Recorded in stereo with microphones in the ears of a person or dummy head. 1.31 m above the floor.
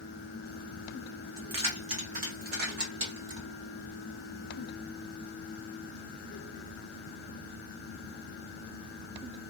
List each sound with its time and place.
1.4 s keys jangling: 20° right (ahead or behind), 0.6 m; by 3.4 s 65° right (ahead or behind), 1.4 m